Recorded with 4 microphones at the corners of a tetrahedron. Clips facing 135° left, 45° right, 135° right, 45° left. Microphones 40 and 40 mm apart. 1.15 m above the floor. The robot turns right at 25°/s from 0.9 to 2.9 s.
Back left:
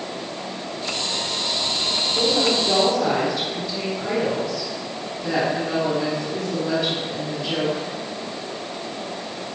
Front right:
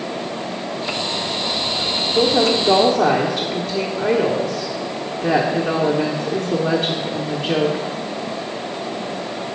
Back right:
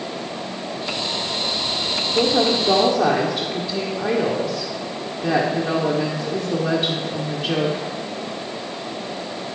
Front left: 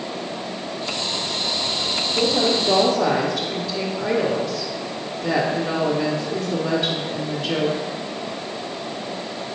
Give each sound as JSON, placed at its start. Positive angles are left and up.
{"t": 2.1, "sound": "a woman speaking", "azimuth_deg": -100, "distance_m": 1.1}